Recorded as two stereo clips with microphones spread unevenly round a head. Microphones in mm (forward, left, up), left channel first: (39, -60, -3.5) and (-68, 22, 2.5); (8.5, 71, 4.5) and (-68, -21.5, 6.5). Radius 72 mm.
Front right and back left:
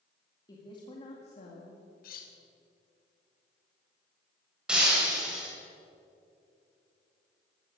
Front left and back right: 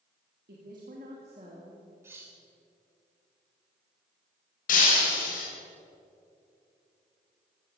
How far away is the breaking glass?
About 3.5 m.